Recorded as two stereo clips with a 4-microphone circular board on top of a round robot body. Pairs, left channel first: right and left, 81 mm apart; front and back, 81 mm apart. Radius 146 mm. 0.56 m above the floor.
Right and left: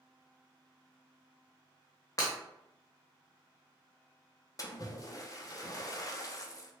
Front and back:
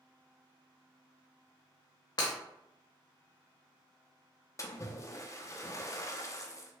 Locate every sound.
2.2 s breaking glass: 40° right, 0.5 m
4.6 s a splash: 50° right, 0.7 m